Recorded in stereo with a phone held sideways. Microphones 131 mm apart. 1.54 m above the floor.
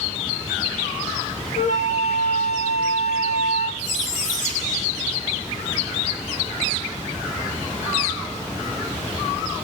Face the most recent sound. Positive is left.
turn(degrees=75)  # may be behind; listen again after turning